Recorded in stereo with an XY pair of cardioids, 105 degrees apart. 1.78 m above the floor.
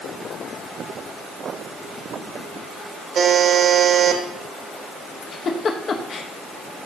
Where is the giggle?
50° left, 1.3 m.